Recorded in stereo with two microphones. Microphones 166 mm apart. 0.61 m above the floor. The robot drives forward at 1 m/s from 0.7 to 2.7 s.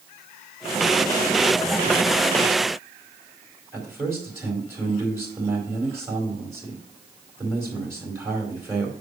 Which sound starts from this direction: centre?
A man speaking, at 3.7 s.